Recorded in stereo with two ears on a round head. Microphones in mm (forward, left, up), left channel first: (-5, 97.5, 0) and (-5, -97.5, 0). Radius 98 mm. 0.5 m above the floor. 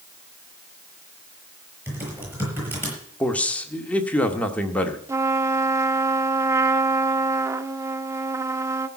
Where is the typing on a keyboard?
10° right (ahead or behind), 7 m.